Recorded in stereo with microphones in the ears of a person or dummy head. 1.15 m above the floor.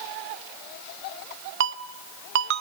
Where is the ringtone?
65° right (ahead or behind), 0.8 m.